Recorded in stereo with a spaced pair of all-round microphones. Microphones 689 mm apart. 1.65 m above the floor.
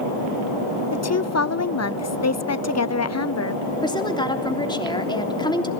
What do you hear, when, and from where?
0.9 s a woman speaking: 25° left (ahead or behind), 0.6 m
3.8 s a woman speaking: 5° left (ahead or behind), 3 m